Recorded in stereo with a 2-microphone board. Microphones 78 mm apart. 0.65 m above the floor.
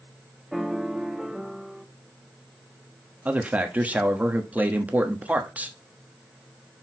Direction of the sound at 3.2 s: 20° right (ahead or behind).